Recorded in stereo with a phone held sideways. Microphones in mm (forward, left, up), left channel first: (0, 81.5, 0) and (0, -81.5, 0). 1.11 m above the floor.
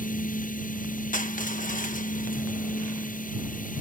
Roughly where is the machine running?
Left.